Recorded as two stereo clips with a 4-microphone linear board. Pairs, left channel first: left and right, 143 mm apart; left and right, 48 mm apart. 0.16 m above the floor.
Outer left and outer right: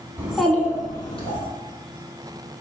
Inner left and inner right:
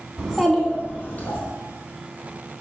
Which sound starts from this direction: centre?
A child speaking, at 0.2 s.